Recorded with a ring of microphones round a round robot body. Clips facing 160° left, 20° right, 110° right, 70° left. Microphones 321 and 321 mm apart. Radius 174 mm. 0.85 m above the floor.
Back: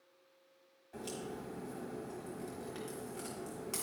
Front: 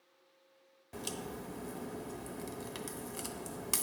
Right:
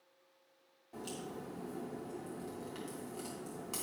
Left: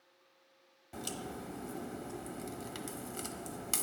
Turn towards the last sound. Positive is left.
turn(degrees=10)